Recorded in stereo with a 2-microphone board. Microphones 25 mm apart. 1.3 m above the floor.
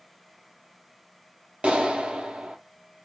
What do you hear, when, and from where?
1.6 s a clap: 45° right (ahead or behind), 0.6 m